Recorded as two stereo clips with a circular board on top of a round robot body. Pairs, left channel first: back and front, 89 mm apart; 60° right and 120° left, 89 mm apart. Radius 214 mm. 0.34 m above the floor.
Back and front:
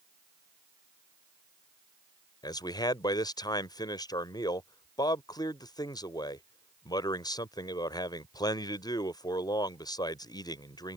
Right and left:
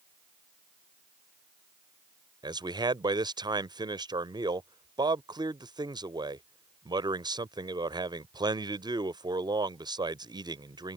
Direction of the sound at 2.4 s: 145° left.